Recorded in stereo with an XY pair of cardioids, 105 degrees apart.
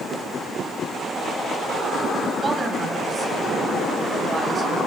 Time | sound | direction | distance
2.4 | a woman speaking | 30° right | 8 m